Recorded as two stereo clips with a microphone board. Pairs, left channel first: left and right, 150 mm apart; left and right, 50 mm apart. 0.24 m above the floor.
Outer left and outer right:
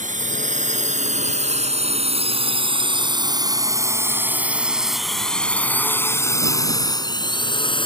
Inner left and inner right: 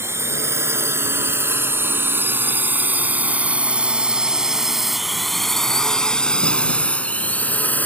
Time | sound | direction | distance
0.0 | a drone | 60° right (ahead or behind) | ?